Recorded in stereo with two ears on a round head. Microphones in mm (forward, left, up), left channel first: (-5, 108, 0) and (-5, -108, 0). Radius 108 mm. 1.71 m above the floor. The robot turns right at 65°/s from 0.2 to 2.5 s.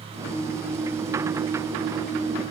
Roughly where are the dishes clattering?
I don't hear dishes clattering.